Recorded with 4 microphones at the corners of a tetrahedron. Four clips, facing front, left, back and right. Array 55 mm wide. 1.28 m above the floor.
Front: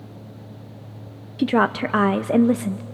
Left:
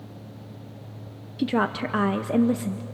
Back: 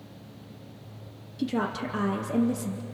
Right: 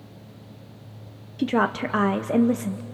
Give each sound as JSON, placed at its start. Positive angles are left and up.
{"t": 1.4, "sound": "a woman speaking", "azimuth_deg": -15, "distance_m": 0.7}